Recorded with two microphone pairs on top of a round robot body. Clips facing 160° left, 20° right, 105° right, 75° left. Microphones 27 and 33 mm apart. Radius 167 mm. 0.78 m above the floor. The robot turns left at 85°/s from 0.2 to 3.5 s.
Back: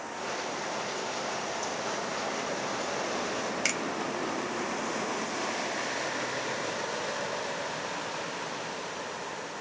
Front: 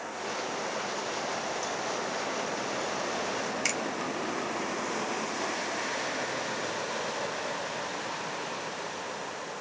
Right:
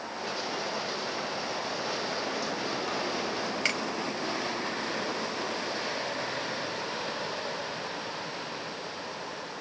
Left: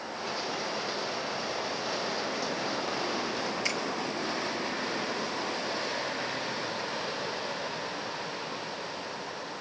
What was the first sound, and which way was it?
A finger snap, 120° right.